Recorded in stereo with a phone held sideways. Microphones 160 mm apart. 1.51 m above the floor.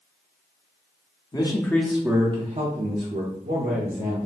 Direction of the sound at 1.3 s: 25° left (ahead or behind).